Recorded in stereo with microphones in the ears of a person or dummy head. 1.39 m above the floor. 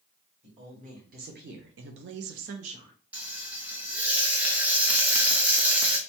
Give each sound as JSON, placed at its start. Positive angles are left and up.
{"t": 0.4, "sound": "a woman speaking", "side_deg": -35, "distance_m": 1.2}
{"t": 3.1, "sound": "frying", "side_deg": -10, "distance_m": 0.7}